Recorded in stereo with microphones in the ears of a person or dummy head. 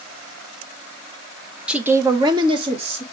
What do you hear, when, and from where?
1.7 s a woman speaking: 5° right (ahead or behind), 0.6 m; by 3.0 s 40° right (ahead or behind), 1.5 m